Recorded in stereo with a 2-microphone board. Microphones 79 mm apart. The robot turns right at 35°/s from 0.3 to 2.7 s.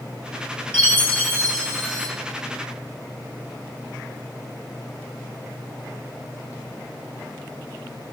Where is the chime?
145° left, 2.5 m; by 2.1 s 170° right, 2.5 m.